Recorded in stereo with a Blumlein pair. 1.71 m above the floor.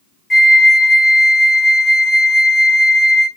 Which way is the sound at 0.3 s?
15° left.